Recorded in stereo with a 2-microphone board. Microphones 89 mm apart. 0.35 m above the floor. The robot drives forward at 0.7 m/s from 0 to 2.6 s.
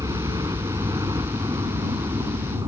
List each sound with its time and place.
0.0 s a helicopter: 45° right (ahead or behind)